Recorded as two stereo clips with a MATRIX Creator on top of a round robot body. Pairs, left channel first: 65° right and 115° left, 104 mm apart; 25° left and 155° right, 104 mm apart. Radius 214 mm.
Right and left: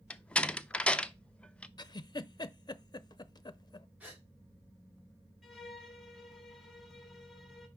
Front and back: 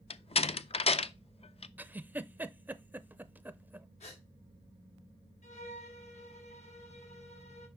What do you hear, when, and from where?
0.1 s a door slam: 10° left, 0.6 m
1.8 s a giggle: 90° right, 0.7 m
4.0 s a gasp: 35° left, 1.4 m
5.4 s a violin: 20° left, 1.8 m